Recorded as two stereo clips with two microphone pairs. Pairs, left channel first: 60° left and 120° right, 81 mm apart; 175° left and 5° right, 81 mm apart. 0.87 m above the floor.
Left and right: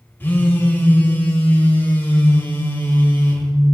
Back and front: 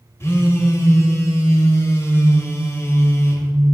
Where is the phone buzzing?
125° left, 1.0 m.